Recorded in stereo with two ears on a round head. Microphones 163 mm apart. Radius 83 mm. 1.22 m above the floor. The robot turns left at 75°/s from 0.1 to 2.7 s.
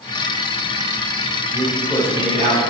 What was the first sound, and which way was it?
A man speaking, 30° left.